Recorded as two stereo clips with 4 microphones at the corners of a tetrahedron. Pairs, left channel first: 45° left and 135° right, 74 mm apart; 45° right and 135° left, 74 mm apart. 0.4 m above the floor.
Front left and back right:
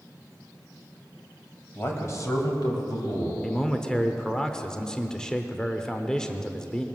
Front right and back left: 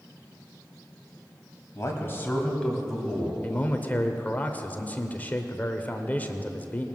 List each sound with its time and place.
1.8 s a man speaking: 10° right, 2.0 m; by 3.3 s 55° left, 2.5 m
3.4 s a man speaking: 25° right, 0.8 m